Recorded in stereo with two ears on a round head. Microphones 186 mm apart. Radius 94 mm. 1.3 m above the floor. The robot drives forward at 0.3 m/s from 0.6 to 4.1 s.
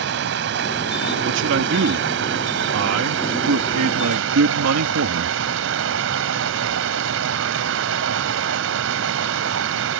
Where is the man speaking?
55° right (ahead or behind); by 5.4 s 70° right (ahead or behind).